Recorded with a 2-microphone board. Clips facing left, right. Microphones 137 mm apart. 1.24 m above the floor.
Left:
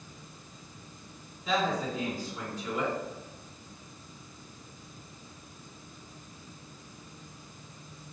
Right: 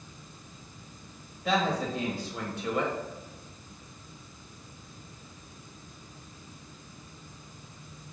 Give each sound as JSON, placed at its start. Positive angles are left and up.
{"t": 1.4, "sound": "a woman speaking", "side_deg": -75, "distance_m": 1.2}